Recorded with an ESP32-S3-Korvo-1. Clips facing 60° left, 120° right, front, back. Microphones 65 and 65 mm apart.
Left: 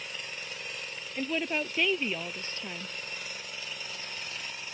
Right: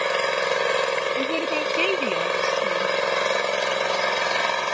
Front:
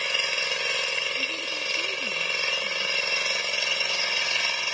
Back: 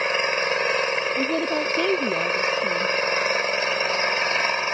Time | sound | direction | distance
0.0 | an engine running | 125° right | ?
1.2 | a woman speaking | 160° left | ?